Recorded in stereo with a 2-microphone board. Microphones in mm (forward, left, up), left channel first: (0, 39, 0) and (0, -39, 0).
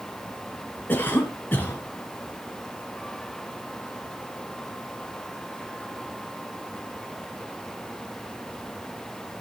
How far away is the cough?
About 1.5 m.